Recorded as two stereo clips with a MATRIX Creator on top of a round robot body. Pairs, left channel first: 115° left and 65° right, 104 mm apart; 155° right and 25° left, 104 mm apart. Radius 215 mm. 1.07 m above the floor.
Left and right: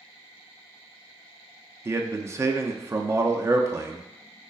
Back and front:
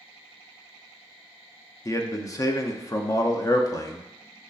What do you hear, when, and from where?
1.9 s a man speaking: 120° right, 0.6 m